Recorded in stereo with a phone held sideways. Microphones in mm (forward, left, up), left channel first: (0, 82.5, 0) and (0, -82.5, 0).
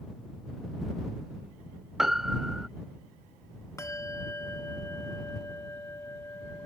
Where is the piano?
Centre (ahead or behind).